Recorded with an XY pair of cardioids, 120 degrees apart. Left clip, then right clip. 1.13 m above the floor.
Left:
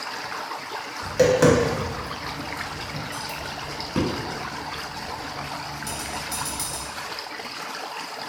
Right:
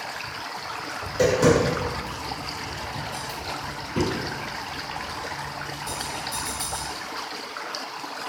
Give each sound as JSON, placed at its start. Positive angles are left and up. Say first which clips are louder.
{"t": 1.0, "sound": "tapping", "louder": "left 2 dB", "azimuth_deg": 55, "distance_m": 1.2}